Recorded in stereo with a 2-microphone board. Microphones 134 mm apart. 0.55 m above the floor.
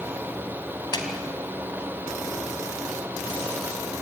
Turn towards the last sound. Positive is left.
turn(degrees=30)  # may be behind; listen again after turning